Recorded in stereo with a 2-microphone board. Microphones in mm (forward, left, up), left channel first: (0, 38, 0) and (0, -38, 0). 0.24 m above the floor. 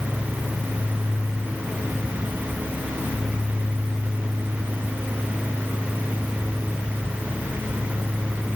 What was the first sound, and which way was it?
Only background noise.